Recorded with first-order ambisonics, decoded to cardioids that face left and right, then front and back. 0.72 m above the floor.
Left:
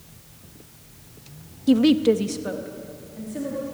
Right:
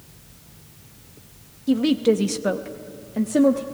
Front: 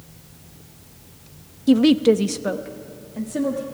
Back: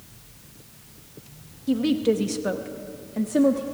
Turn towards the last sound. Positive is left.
turn(degrees=-110)